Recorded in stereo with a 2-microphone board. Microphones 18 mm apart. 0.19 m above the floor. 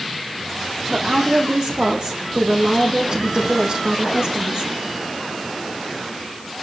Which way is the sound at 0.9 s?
50° right (ahead or behind).